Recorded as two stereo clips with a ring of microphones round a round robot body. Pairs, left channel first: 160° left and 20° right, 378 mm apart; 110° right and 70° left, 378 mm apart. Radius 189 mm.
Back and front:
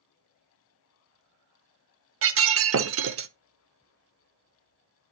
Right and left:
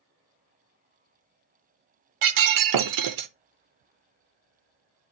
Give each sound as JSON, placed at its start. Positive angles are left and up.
{"t": 2.2, "sound": "breaking glass", "azimuth_deg": 30, "distance_m": 0.7}